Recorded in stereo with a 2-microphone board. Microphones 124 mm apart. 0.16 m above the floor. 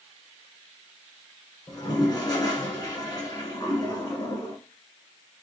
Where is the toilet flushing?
35° left (ahead or behind), 1.0 m.